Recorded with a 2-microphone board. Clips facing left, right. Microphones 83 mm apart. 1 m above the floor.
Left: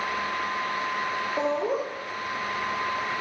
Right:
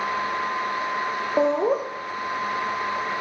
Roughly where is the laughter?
Right.